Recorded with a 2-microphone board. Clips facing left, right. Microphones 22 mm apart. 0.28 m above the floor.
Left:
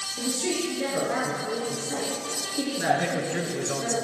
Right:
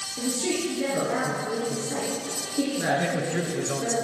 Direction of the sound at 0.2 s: 15° left (ahead or behind).